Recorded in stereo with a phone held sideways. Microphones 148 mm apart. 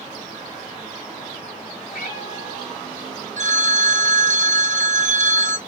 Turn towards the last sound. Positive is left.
turn(degrees=-55)  # may be behind; listen again after turning